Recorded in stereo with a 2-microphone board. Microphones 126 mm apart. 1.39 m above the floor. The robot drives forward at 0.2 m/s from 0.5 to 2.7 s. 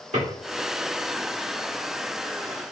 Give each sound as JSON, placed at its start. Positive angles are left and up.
{"t": 0.1, "sound": "a drawer", "side_deg": -75, "distance_m": 1.8}